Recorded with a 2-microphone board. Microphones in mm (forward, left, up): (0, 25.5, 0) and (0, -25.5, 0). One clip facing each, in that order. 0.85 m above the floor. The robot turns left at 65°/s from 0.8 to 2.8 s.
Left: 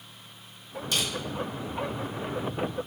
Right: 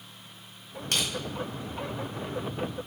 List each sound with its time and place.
0.9 s crushing: 60° right (ahead or behind), 0.8 m; by 1.1 s 50° right (ahead or behind), 0.8 m